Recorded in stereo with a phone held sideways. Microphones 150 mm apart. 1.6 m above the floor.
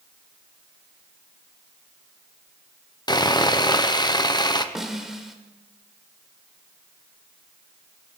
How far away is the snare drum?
About 2 m.